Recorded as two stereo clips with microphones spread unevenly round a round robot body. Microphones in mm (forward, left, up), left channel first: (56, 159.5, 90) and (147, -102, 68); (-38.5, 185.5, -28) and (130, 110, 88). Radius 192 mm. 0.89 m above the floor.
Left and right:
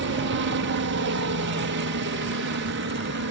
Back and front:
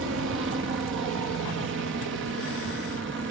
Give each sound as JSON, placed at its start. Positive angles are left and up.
{"t": 0.0, "sound": "a helicopter", "azimuth_deg": -75}